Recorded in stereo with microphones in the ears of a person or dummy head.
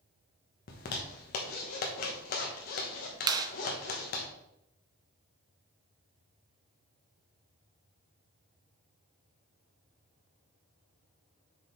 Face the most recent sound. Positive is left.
turn(degrees=-20)  # may be behind; listen again after turning